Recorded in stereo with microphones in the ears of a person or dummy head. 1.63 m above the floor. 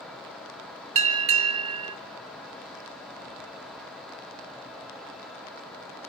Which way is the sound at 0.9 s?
35° right (ahead or behind).